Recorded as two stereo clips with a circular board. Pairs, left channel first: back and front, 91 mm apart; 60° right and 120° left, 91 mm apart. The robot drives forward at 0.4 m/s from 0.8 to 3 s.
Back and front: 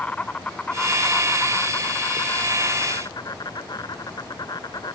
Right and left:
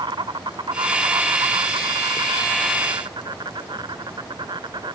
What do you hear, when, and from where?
0.0 s an insect: 105° left; by 5.0 s 145° left